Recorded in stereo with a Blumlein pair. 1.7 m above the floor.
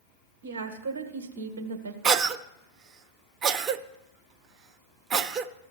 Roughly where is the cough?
Ahead right.